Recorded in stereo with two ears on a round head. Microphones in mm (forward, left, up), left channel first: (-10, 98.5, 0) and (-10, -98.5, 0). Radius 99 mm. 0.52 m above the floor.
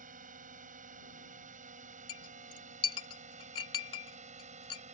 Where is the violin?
No violin in this recording.